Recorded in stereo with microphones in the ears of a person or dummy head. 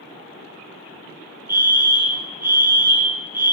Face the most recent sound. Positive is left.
turn(degrees=-10)  # may be behind; listen again after turning